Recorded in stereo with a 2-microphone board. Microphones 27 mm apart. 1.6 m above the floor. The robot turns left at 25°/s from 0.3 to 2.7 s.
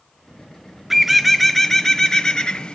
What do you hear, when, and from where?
0.9 s a bird: 170° right, 0.6 m; by 2.8 s 145° left, 0.6 m